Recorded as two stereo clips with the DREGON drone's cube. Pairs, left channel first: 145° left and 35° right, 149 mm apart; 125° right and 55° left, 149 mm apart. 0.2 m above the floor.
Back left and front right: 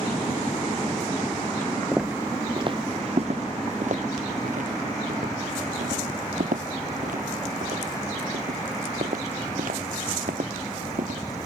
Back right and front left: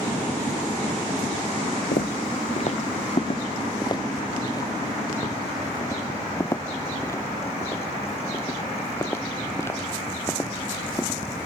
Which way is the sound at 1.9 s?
120° right.